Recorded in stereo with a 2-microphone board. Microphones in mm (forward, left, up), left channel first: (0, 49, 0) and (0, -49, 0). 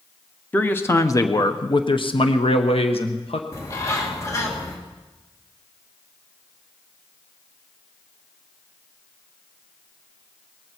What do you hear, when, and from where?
0.5 s a man speaking: 20° left (ahead or behind), 1.1 m; by 3.4 s 80° left, 1.4 m
3.5 s a bird: 30° left (ahead or behind), 2.0 m